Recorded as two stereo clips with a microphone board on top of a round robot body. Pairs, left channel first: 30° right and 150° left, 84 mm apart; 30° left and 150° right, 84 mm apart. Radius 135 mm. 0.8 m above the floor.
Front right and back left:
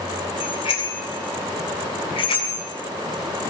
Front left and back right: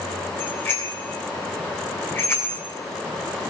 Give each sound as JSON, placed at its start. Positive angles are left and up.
{"t": 0.4, "sound": "a bicycle bell", "azimuth_deg": -35, "distance_m": 7.5}